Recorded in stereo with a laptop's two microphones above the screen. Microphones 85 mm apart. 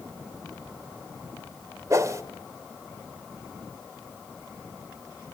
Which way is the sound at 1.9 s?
40° right (ahead or behind).